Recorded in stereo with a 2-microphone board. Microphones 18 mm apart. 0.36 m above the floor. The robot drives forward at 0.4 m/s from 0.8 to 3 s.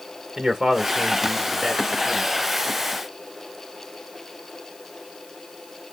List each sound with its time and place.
0.4 s a man speaking: 45° right (ahead or behind), 1.1 m; by 2.3 s 35° right (ahead or behind), 1.3 m